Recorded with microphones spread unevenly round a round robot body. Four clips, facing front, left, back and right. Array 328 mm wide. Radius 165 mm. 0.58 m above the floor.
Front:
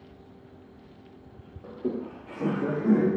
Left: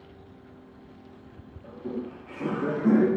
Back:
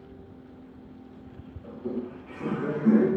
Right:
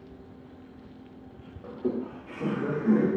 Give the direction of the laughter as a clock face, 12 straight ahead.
1 o'clock.